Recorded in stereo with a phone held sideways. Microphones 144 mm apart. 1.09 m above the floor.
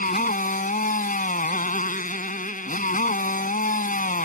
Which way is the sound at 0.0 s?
70° left (ahead or behind).